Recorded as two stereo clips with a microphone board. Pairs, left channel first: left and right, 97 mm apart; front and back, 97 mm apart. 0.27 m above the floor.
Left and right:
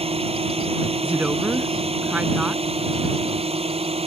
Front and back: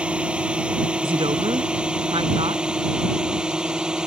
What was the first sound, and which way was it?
A drone, 100° right.